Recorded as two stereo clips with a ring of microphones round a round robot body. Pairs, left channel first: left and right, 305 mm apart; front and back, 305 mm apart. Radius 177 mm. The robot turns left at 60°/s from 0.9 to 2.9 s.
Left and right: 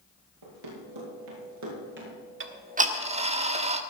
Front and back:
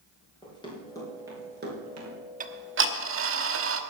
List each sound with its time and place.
0.4 s running footsteps: 75° right, 7 m; by 2.2 s 155° right, 6 m
2.4 s ticking: 125° right, 1.2 m; by 3.8 s 155° right, 1.2 m